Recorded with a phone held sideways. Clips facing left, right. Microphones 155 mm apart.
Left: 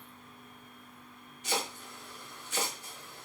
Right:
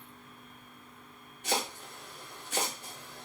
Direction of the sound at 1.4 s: 55° right (ahead or behind).